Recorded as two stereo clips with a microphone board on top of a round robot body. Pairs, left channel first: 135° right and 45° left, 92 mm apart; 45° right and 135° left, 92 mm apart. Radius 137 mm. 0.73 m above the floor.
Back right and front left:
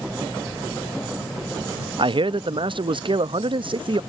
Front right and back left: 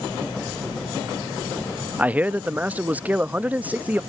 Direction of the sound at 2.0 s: 65° left.